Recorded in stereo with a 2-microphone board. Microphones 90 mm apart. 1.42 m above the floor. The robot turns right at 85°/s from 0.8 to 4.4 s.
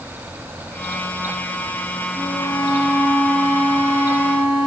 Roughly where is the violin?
Behind left.